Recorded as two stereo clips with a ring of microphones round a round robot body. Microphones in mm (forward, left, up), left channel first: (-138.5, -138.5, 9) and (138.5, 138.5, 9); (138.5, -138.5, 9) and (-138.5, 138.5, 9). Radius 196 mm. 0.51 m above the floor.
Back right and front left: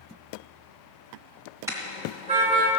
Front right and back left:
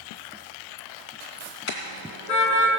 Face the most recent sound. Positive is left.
turn(degrees=-25)